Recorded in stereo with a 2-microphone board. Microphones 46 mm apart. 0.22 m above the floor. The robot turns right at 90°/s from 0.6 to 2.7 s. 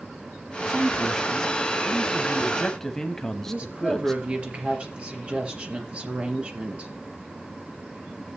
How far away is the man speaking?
About 1.5 m.